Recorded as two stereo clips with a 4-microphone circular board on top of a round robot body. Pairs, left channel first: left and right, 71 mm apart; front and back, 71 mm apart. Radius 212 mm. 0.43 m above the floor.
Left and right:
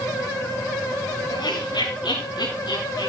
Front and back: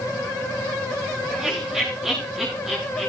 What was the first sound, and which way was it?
Laughter, 95° left.